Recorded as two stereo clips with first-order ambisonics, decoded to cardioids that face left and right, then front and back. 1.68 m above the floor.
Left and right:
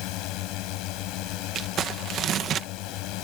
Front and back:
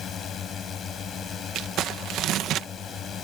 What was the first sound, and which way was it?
A drone, 60° left.